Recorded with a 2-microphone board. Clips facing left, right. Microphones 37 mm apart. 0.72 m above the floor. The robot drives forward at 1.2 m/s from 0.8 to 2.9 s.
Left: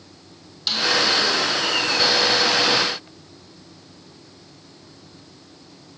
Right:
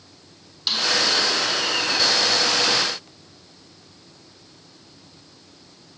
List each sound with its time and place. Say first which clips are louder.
0.7 s a snare drum: left 1 dB; 5° right (ahead or behind), 1.4 m